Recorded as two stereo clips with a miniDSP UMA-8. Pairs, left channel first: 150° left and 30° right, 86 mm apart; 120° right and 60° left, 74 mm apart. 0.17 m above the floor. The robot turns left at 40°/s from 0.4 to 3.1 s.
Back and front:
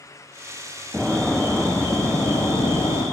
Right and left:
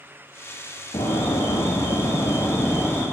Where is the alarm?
110° right, 8 m; by 3.0 s 165° left, 8 m.